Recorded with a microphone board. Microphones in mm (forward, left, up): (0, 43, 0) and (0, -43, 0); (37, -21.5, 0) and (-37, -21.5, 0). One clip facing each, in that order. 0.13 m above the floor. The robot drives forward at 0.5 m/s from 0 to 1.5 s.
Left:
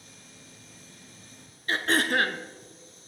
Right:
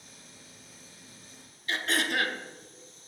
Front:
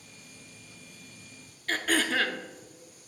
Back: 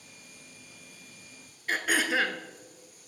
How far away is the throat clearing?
About 0.6 m.